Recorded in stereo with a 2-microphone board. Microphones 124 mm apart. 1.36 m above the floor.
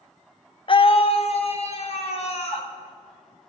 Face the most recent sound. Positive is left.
turn(degrees=55)  # may be behind; listen again after turning